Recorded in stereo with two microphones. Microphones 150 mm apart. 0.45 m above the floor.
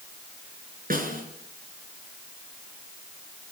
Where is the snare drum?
70° right (ahead or behind), 4.5 m.